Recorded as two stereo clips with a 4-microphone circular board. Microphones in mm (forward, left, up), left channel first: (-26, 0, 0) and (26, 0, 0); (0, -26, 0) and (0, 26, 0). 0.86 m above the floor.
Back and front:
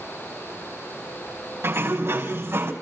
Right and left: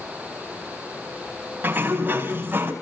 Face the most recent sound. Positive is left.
turn(degrees=40)